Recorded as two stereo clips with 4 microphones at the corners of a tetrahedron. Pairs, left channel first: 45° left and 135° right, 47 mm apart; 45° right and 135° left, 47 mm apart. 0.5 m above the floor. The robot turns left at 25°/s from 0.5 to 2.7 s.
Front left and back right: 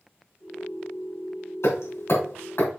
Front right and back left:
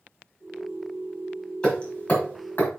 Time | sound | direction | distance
1.6 | hammering | 25° left | 3.5 m